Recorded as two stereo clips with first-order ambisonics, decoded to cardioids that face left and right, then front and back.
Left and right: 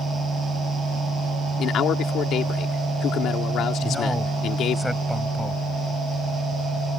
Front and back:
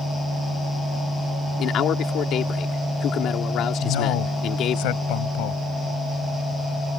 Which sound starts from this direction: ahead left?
A man speaking, at 1.6 s.